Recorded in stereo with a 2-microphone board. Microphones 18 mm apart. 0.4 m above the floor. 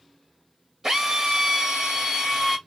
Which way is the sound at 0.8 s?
30° right (ahead or behind).